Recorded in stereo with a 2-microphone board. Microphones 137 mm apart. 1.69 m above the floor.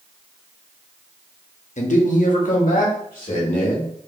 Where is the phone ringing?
No phone ringing in this recording.